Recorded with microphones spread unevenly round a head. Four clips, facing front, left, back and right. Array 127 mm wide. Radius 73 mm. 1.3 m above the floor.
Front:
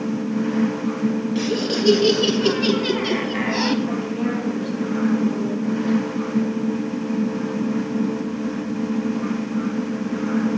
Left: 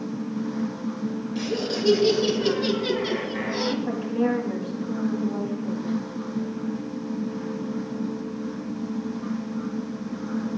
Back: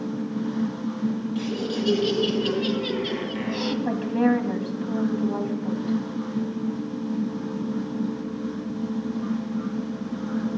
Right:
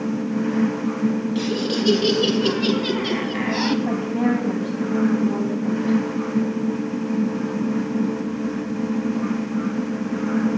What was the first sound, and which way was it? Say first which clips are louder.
Laughter: right 4 dB, front 5 dB; 25° right.